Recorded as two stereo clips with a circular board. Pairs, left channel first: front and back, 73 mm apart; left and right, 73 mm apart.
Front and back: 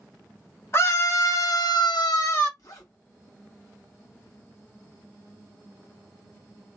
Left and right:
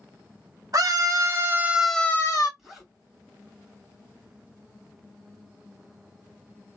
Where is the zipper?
5° right, 1.9 m.